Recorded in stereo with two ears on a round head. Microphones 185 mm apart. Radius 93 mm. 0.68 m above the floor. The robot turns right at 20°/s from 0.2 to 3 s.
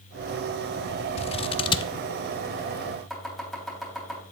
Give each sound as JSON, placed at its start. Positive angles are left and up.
{"t": 1.2, "sound": "scissors", "side_deg": 30, "distance_m": 0.5}
{"t": 3.1, "sound": "chopping", "side_deg": 0, "distance_m": 3.5}